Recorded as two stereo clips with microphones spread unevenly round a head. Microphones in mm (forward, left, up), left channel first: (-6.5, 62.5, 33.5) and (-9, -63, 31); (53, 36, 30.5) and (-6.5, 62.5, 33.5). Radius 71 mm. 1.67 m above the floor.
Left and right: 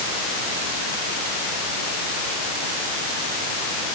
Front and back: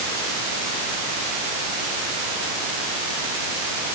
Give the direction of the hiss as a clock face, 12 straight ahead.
No hiss in this recording.